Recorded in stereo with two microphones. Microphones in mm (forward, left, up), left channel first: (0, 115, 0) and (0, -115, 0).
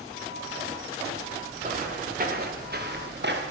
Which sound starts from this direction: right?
Footsteps, at 1.6 s.